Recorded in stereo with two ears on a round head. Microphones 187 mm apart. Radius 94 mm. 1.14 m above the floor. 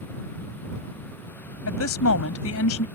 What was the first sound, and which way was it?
A woman speaking, 75° left (ahead or behind).